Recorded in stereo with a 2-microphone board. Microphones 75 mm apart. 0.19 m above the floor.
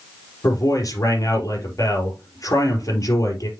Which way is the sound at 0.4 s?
50° left (ahead or behind).